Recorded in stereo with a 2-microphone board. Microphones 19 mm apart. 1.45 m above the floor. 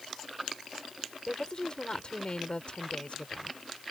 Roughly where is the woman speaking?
Left.